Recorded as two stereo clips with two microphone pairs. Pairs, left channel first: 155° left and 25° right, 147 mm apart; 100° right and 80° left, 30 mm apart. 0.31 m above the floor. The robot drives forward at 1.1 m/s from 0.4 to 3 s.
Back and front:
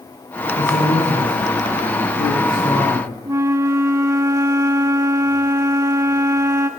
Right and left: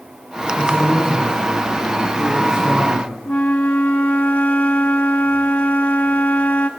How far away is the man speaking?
About 4.5 m.